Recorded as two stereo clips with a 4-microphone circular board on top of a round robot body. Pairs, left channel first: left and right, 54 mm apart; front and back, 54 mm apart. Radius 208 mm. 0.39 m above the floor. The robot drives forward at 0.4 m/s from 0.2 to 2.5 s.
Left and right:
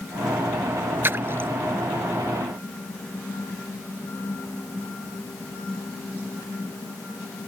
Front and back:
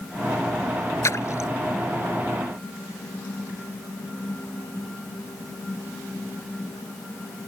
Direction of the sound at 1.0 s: 35° right.